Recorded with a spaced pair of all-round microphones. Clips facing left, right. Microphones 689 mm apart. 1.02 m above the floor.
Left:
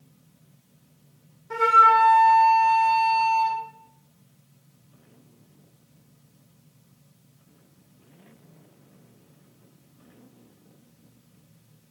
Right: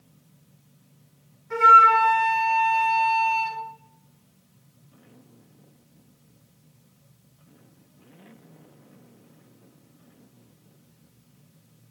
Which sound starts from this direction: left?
A flute, at 1.5 s.